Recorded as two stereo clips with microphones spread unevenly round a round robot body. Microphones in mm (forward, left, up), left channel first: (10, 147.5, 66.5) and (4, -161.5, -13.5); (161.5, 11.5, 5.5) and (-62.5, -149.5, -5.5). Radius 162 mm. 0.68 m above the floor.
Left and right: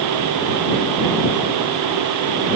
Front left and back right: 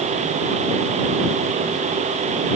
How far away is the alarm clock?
I don't hear an alarm clock.